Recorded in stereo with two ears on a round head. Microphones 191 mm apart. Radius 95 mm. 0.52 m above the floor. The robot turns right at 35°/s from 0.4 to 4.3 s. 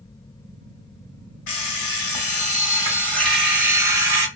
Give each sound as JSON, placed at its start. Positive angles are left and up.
{"t": 1.5, "sound": "an alarm clock", "azimuth_deg": 115, "distance_m": 1.4}